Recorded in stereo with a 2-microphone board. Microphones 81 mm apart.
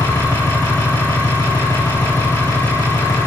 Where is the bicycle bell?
I don't hear a bicycle bell.